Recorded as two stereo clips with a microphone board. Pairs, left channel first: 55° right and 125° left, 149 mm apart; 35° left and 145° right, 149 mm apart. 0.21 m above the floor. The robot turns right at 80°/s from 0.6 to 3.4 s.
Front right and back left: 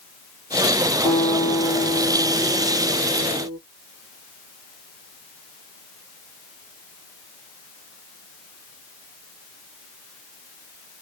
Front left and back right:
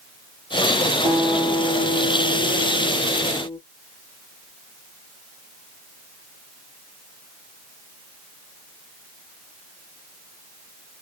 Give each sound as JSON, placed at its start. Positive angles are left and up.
{"t": 1.1, "sound": "a guitar", "azimuth_deg": -85, "distance_m": 1.3}